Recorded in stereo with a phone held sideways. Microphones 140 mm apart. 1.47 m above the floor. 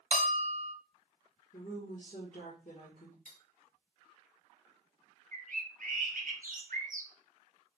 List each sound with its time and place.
0.1 s a bell: 50° right (ahead or behind), 0.8 m
1.5 s a woman speaking: 70° left (ahead or behind), 2 m
3.2 s cutlery clinking: 65° left (ahead or behind), 2.5 m
5.3 s a bird: 70° right (ahead or behind), 1.0 m